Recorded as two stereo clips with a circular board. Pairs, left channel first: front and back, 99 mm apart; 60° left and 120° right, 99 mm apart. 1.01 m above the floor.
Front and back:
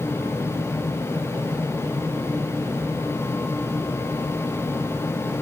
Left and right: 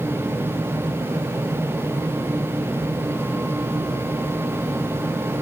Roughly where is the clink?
No clink in this recording.